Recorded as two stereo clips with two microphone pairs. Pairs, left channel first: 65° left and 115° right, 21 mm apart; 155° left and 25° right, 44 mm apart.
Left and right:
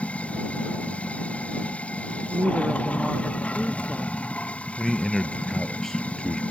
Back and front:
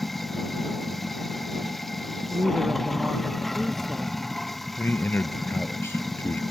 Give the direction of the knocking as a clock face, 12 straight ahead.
No knocking in this recording.